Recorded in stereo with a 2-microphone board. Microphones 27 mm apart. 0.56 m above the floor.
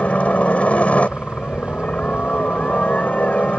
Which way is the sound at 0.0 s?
60° left (ahead or behind).